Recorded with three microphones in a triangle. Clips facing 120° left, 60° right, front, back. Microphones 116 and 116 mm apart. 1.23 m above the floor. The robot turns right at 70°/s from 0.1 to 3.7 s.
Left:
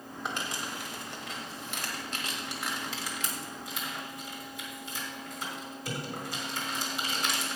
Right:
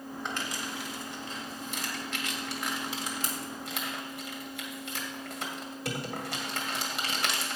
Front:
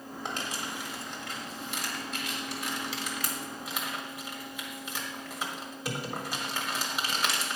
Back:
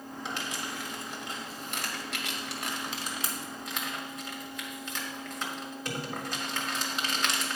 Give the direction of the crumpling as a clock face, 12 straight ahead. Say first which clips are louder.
Left 2 dB, front 1 dB; 11 o'clock.